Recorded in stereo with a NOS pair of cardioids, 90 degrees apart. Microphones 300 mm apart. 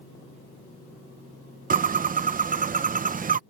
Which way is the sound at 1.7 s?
30° right.